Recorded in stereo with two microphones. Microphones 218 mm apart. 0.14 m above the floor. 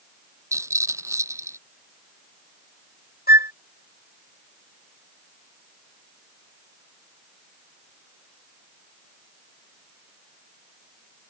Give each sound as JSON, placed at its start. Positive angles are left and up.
{"t": 0.5, "sound": "a rattle", "side_deg": -15}
{"t": 3.3, "sound": "a flute", "side_deg": 45}